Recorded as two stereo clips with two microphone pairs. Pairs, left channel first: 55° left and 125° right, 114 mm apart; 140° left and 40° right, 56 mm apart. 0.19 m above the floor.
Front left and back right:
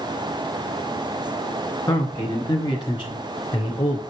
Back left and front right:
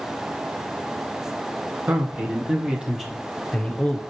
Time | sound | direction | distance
1.9 | a man speaking | straight ahead | 1.9 m